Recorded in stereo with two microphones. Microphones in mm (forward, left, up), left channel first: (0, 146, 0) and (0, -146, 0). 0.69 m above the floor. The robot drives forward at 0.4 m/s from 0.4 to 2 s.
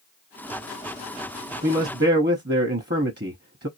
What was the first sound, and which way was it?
A man speaking, 30° right (ahead or behind).